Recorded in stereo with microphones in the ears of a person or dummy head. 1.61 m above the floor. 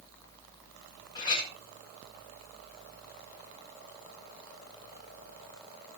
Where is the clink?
20° left (ahead or behind), 4 m.